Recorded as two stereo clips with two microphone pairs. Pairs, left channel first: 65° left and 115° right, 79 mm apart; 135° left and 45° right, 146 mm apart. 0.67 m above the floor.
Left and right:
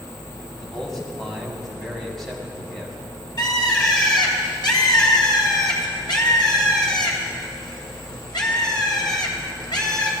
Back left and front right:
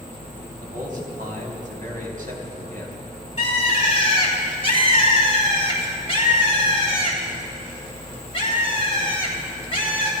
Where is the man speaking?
25° right, 4 m.